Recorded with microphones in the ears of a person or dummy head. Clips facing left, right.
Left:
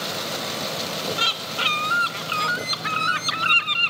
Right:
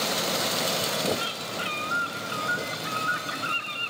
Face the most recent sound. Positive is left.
turn(degrees=80)